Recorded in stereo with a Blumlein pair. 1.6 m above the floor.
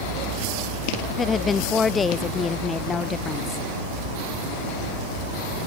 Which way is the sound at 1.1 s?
15° left.